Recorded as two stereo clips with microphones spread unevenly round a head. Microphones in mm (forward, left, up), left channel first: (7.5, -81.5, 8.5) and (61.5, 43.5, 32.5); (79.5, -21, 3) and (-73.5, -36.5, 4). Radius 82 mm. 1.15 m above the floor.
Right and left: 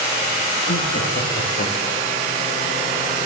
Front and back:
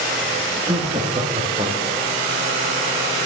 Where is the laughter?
110° right, 2 m; by 2.2 s 125° right, 3 m.